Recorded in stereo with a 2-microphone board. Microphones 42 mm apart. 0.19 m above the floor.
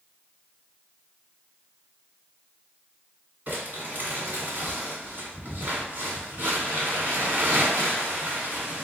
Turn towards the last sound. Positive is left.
turn(degrees=-40)  # may be behind; listen again after turning